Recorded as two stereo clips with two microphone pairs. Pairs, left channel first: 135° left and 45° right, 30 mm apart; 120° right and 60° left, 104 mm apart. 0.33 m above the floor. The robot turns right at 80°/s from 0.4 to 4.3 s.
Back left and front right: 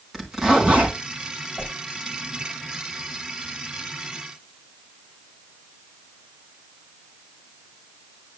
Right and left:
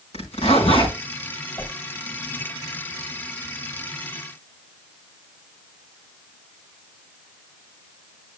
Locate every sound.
0.1 s a zipper: 125° right, 4 m; by 0.9 s 80° right, 4 m
1.6 s a whoosh: 155° right, 1.2 m; by 1.8 s 140° right, 1.2 m